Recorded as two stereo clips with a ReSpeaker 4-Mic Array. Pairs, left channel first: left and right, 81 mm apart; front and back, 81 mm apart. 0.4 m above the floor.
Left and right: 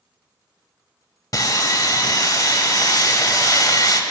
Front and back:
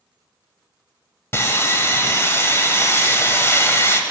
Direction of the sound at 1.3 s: 55° left.